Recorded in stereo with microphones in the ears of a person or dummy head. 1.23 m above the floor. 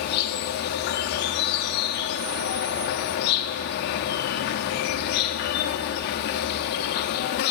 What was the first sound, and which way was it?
An insect, 50° left (ahead or behind).